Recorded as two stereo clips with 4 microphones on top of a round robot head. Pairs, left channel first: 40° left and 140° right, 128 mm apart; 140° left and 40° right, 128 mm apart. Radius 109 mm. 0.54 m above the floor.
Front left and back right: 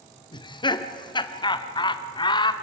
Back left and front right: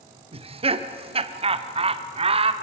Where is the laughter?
5° right, 1.3 m.